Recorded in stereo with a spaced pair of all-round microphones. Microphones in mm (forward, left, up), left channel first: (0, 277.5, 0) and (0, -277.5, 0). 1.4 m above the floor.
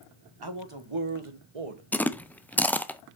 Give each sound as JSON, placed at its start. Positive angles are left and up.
{"t": 0.4, "sound": "a man speaking", "side_deg": -45, "distance_m": 1.5}
{"t": 1.9, "sound": "chewing", "side_deg": 5, "distance_m": 0.5}